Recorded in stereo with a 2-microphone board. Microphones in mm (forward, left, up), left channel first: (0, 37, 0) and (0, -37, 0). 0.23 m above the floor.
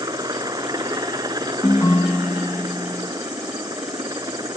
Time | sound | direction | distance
0.0 | a helicopter | 65° right (ahead or behind) | ?
1.6 | a ringtone | 50° left (ahead or behind) | ?